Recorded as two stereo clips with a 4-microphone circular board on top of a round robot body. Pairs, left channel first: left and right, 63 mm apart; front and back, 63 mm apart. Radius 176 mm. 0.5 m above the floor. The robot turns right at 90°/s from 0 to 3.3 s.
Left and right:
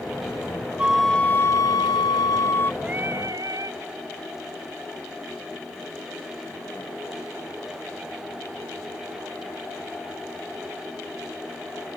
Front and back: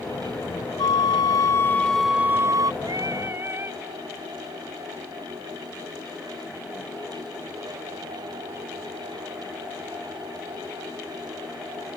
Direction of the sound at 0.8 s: 20° right.